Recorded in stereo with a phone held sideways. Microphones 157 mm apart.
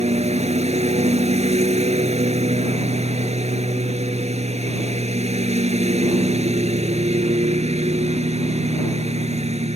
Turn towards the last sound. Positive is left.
turn(degrees=-45)  # may be behind; listen again after turning